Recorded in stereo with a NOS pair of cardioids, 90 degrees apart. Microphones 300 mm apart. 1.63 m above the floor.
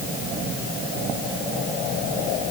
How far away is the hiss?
No hiss in this recording.